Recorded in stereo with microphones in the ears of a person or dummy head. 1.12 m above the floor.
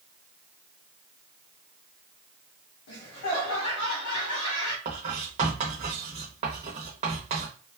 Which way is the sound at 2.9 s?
70° left (ahead or behind).